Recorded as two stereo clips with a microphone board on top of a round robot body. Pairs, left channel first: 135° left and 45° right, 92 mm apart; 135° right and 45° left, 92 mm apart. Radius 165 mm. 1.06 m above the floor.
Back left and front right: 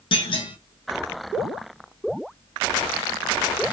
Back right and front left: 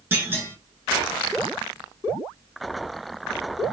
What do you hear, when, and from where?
0.1 s a clunk: 115° left, 1.8 m